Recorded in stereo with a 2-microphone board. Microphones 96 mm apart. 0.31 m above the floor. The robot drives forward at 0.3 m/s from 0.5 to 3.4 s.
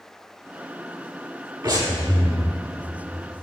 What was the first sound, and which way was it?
Breathing, 45° right (ahead or behind).